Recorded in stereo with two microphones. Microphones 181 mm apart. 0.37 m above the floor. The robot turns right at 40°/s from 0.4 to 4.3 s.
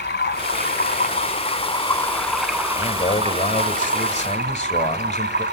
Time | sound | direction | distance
0.0 | running water | 100° left | 1.2 m
2.8 | a man speaking | 55° left | 1.4 m